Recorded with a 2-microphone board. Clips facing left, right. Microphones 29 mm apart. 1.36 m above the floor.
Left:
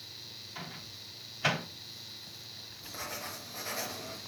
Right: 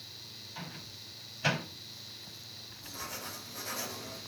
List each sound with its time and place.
0.6 s a microwave: 10° left (ahead or behind), 3.5 m
2.8 s writing: 30° left (ahead or behind), 2.5 m